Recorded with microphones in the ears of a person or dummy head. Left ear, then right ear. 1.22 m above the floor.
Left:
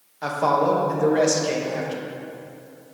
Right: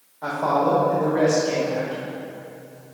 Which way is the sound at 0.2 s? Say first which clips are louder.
Left 1 dB; 80° left.